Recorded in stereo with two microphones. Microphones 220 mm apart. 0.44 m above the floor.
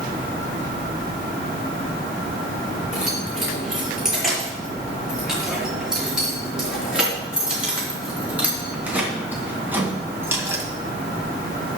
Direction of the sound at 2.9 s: Centre (ahead or behind).